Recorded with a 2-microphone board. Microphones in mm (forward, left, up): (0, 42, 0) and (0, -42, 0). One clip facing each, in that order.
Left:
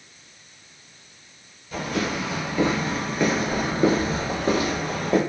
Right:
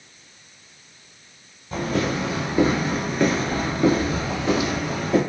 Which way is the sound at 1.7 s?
35° right (ahead or behind).